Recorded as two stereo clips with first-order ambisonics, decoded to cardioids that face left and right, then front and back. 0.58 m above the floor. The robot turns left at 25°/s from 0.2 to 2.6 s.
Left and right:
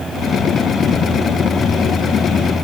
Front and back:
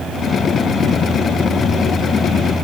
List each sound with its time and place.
Only background noise.